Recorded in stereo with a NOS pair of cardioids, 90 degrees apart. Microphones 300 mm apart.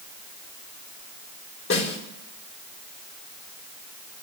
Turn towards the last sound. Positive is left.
turn(degrees=40)